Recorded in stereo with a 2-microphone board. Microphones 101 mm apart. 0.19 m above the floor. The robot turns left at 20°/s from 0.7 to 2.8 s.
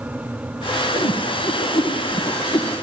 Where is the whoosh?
80° left, 3.5 m; by 2.7 s 60° left (ahead or behind), 3.5 m.